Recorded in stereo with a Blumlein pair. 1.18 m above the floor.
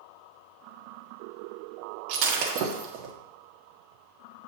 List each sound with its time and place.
2.1 s breaking glass: 40° right, 1.4 m